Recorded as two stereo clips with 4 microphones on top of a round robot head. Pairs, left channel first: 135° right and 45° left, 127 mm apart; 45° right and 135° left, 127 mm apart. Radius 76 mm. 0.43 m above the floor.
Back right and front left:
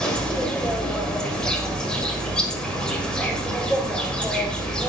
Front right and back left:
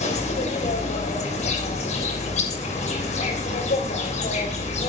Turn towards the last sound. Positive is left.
turn(degrees=-55)